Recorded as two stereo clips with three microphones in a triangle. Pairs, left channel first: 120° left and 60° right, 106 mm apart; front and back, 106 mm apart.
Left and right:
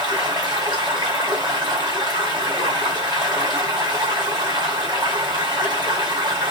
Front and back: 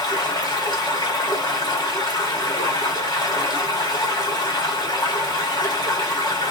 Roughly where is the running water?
Ahead right.